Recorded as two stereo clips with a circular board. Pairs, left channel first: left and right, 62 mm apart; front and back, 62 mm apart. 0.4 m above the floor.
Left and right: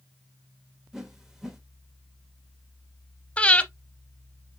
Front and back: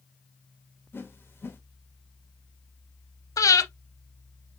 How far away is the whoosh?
About 1.1 m.